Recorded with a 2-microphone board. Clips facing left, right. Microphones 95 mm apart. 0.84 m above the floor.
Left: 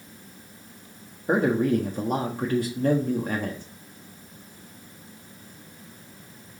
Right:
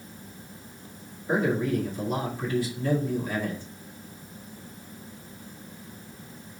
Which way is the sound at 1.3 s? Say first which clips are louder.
Left 3 dB; 50° left (ahead or behind).